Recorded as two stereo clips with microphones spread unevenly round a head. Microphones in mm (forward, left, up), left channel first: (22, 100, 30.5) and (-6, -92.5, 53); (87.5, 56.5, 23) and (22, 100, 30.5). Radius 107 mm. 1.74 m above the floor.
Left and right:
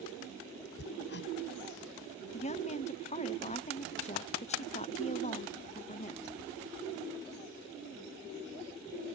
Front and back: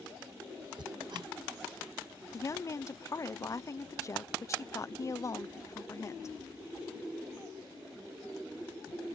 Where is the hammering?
125° left.